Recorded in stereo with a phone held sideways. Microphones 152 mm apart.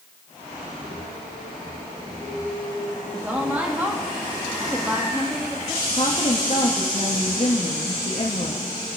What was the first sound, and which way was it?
A woman speaking, 10° right (ahead or behind).